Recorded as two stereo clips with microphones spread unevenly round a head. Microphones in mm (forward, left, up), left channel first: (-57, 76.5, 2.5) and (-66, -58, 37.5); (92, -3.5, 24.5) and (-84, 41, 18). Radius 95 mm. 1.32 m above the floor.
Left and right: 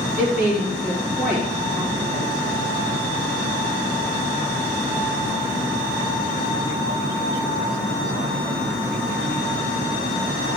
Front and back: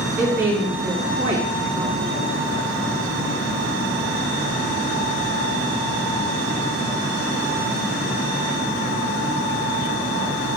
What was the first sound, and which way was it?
A woman speaking, 110° right.